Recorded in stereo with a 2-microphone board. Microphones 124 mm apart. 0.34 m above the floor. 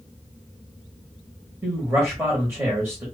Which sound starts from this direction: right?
A man speaking, at 1.6 s.